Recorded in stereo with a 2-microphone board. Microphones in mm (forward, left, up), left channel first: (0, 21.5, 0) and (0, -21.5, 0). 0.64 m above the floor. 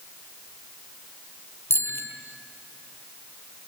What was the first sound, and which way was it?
A bicycle bell, 60° left (ahead or behind).